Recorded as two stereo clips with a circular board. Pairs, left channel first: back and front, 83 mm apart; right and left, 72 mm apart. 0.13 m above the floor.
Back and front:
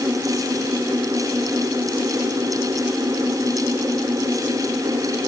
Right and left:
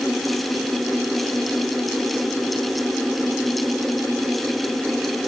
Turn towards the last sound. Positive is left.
No sound to turn to.